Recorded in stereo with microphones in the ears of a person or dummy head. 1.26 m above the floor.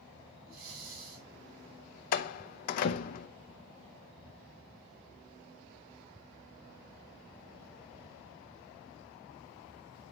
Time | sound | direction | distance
0.5 | breathing | 55° right (ahead or behind) | 4.5 m
2.1 | a door slam | 50° left (ahead or behind) | 0.7 m